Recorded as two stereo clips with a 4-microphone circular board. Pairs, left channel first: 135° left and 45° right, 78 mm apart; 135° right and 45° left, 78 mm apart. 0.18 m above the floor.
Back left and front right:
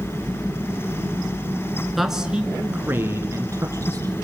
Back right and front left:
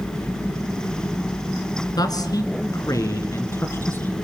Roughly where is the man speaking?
Behind right.